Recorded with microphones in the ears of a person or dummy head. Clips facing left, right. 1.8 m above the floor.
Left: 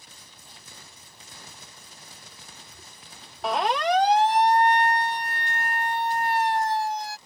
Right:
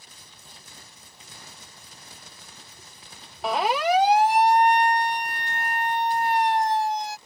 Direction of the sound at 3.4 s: Centre (ahead or behind).